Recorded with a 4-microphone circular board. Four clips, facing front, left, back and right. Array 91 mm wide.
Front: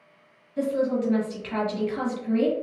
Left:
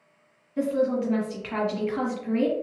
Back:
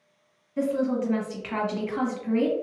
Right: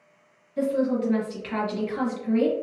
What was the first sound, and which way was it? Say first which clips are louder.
A woman speaking: even, front 1 dB; 140° left.